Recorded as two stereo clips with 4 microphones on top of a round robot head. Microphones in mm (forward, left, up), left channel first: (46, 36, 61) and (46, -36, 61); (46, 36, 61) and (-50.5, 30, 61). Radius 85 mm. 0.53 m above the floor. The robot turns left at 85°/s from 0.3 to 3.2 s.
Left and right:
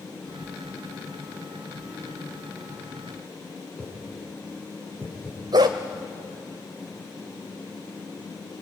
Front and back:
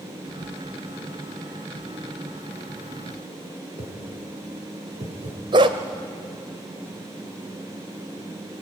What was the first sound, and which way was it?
A whoosh, 175° left.